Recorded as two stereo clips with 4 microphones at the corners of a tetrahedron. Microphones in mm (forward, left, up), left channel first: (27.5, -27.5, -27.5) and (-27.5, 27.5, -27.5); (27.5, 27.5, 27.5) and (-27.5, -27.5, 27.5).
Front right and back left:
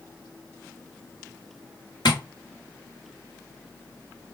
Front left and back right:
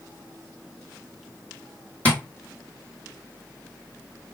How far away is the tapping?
About 1.3 m.